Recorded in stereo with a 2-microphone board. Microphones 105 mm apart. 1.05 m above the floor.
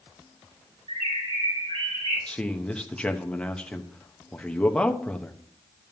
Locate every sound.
0.9 s a bird: 75° right (ahead or behind), 5 m
2.3 s a man speaking: 10° left (ahead or behind), 0.8 m